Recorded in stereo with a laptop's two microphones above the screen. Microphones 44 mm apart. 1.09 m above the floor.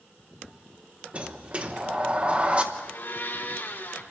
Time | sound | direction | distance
1.1 | a sliding door | 25° right (ahead or behind) | 1.1 m
2.7 | a blender | 50° left (ahead or behind) | 2.5 m